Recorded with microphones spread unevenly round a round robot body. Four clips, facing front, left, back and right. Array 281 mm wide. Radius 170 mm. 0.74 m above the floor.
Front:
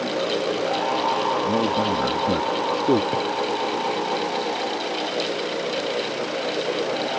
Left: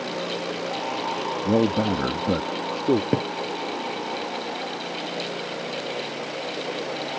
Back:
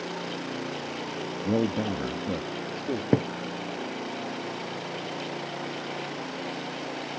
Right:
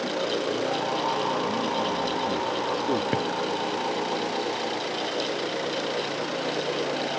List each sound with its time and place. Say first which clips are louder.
1.4 s a man speaking: left 5 dB, front 5 dB; 100° left; by 3.0 s 25° left
3.1 s a drawer: left 2 dB, even; 155° left